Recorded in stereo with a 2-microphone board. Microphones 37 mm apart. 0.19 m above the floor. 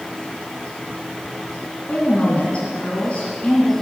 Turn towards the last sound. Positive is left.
turn(degrees=35)  # may be behind; listen again after turning